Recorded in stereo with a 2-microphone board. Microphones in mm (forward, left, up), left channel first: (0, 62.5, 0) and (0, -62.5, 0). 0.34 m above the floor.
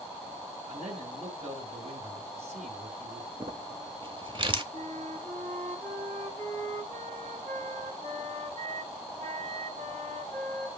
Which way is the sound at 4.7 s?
65° right (ahead or behind).